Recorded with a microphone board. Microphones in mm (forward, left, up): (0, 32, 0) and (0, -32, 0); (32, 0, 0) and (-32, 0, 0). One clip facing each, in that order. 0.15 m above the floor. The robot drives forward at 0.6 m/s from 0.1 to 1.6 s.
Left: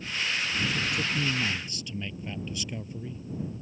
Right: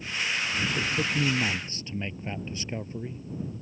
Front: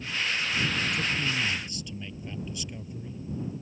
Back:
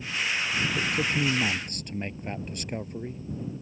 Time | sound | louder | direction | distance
0.7 | a man speaking | right 2 dB, back 2 dB | 140° right | ?